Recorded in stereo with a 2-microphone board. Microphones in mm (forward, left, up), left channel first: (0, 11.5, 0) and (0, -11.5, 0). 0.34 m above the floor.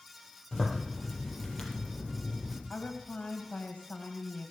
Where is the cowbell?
No cowbell in this recording.